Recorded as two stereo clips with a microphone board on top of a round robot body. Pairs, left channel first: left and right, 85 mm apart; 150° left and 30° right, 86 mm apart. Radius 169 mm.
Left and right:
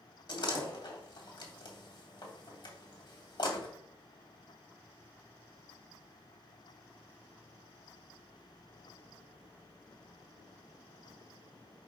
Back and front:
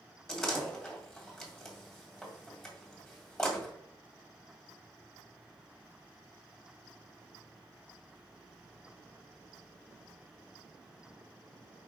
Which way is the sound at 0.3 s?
65° left.